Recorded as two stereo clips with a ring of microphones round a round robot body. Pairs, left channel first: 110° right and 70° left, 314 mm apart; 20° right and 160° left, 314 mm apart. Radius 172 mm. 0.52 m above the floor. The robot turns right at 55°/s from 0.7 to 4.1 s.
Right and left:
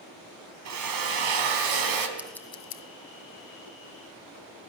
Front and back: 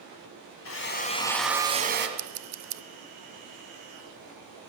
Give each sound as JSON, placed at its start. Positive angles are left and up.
{"t": 0.7, "sound": "a drill", "azimuth_deg": 25, "distance_m": 2.5}
{"t": 2.2, "sound": "scissors", "azimuth_deg": 150, "distance_m": 0.8}